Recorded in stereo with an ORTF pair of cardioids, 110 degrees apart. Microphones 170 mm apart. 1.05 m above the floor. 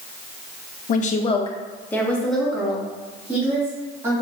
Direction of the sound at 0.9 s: 55° left.